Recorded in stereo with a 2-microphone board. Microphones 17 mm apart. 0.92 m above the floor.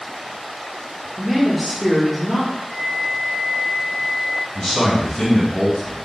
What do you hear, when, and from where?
1.2 s a woman speaking: 20° right (ahead or behind), 1.0 m
2.7 s a flute: 20° left (ahead or behind), 1.8 m
4.5 s a man speaking: 25° left (ahead or behind), 2 m